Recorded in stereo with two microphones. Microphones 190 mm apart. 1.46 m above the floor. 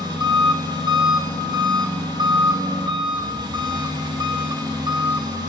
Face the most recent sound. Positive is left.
turn(degrees=-20)  # may be behind; listen again after turning